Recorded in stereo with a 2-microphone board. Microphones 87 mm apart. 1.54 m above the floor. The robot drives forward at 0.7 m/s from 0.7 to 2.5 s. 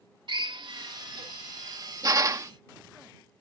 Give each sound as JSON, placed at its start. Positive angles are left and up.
{"t": 0.3, "sound": "a drill", "side_deg": -60}